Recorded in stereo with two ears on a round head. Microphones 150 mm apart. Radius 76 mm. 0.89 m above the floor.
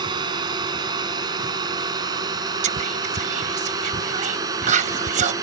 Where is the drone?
25° right (ahead or behind); by 5.4 s 20° right (ahead or behind).